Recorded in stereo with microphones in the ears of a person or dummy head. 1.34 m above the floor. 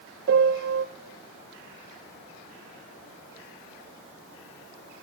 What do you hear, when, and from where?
0.3 s a piano: 60° right (ahead or behind), 0.8 m